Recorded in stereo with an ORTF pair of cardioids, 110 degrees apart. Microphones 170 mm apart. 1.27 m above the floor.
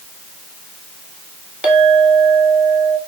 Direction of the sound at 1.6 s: 5° right.